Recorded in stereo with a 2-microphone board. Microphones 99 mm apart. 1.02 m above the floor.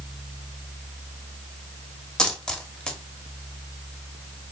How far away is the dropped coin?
About 0.8 m.